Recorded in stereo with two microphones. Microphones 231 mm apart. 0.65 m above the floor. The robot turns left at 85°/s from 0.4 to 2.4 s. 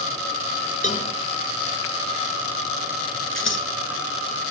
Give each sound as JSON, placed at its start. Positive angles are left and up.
{"t": 0.8, "sound": "a cowbell", "side_deg": 35, "distance_m": 1.1}
{"t": 3.4, "sound": "scissors", "side_deg": 60, "distance_m": 1.6}